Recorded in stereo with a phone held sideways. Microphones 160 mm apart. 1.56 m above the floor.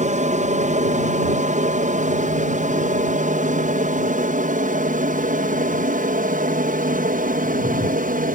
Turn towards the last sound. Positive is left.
turn(degrees=-60)  # may be behind; listen again after turning